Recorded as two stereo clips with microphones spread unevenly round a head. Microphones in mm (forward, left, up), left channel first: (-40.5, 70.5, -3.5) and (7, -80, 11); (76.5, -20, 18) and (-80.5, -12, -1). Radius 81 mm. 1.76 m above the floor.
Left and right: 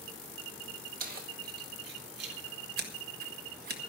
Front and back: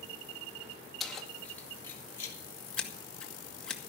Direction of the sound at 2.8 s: 85° right.